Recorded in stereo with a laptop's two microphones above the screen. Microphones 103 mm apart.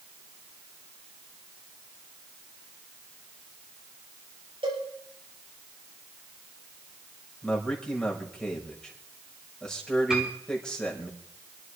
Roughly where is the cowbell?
Right.